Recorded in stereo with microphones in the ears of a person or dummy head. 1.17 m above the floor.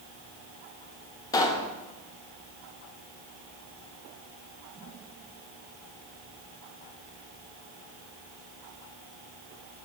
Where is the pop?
20° left (ahead or behind), 1.0 m.